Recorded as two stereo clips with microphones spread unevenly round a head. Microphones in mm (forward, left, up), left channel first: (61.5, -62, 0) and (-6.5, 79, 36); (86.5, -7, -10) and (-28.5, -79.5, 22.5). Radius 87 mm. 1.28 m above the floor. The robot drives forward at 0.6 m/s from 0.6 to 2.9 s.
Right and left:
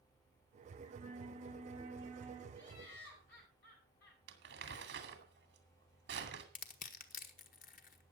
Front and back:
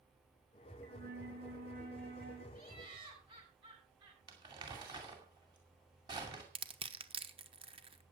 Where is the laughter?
100° right, 9 m.